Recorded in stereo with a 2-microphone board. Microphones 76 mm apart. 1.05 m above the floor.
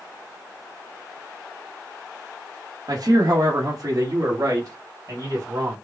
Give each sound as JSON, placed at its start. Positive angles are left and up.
{"t": 2.9, "sound": "a man speaking", "side_deg": -60, "distance_m": 1.3}